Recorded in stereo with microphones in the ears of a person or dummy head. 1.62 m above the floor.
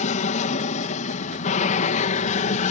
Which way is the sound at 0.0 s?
40° left (ahead or behind).